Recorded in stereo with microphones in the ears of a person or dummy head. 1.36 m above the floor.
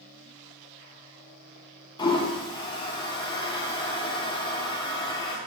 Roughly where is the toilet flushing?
Left.